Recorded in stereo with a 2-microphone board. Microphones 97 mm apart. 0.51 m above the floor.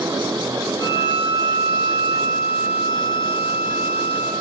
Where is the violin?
40° left (ahead or behind), 9.5 m.